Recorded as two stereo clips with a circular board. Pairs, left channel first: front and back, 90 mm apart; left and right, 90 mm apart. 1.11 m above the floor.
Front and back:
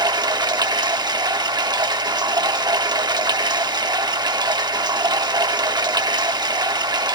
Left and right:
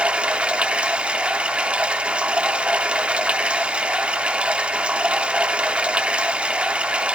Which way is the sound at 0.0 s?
165° right.